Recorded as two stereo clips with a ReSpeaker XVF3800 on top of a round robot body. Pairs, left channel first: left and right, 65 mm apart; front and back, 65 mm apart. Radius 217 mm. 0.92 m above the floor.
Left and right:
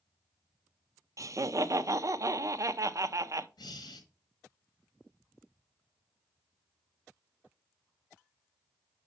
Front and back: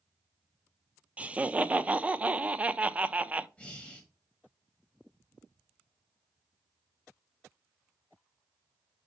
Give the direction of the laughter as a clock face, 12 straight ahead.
4 o'clock.